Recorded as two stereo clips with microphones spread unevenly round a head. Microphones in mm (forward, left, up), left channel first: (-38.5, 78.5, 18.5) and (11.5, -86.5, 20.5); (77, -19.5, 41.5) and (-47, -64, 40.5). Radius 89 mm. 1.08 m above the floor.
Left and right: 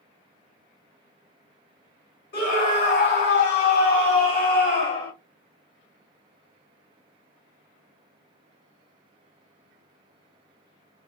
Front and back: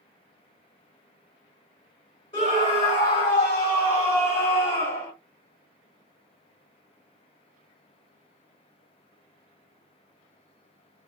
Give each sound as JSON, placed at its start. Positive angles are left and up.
{"t": 2.3, "sound": "a scream", "azimuth_deg": 75, "distance_m": 3.5}